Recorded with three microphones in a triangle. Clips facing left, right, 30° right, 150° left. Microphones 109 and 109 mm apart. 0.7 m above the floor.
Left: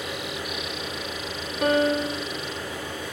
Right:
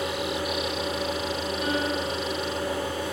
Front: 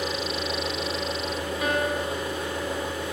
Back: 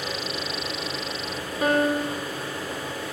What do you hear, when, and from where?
0.0 s an engine running: 100° right, 8 m
1.6 s a piano: 105° left, 1.6 m